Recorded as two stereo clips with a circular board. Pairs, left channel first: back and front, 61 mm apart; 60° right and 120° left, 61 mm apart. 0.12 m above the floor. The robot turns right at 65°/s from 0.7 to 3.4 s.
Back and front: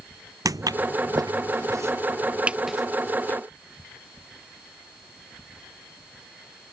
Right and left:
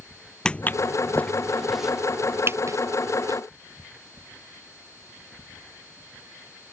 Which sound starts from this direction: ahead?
Footsteps, at 0.5 s.